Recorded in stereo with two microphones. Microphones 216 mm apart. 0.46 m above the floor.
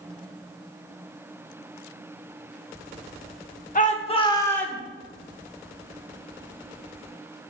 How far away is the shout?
About 1.5 m.